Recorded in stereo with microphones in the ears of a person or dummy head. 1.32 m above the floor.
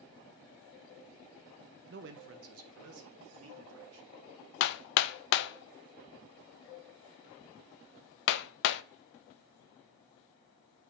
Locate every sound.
1.9 s a man speaking: 50° right (ahead or behind), 0.5 m; by 4.1 s 80° right, 1.7 m
4.6 s hammering: 65° left (ahead or behind), 0.5 m